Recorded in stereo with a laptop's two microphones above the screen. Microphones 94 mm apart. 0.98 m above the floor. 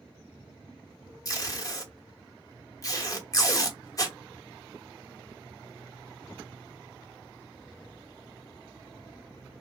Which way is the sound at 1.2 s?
35° left (ahead or behind).